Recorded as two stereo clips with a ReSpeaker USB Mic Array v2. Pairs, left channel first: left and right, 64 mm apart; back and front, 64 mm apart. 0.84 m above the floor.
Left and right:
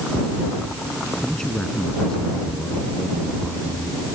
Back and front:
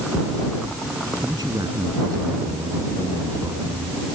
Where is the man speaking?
10° left.